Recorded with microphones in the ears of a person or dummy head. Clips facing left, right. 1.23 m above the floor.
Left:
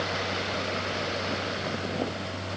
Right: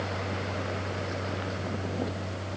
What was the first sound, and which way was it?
Only background noise.